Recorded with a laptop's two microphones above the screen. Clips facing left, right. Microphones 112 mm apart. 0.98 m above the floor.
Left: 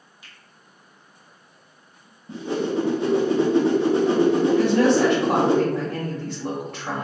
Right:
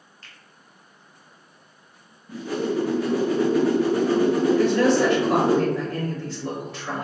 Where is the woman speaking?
60° left (ahead or behind), 1.6 m.